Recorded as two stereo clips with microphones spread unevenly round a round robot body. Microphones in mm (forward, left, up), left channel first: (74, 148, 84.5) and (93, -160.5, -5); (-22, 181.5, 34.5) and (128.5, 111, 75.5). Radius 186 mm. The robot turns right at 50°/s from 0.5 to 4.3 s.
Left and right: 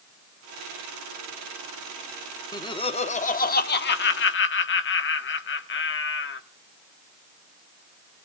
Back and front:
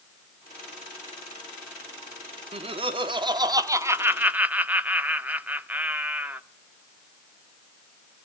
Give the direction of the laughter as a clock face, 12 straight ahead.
12 o'clock.